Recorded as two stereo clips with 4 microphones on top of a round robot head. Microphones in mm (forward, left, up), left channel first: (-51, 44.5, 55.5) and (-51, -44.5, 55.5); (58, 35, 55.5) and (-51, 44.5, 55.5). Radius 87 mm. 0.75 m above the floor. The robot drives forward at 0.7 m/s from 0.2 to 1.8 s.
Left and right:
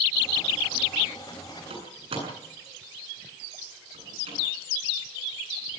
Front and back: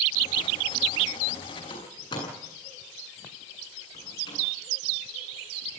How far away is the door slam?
About 8.5 m.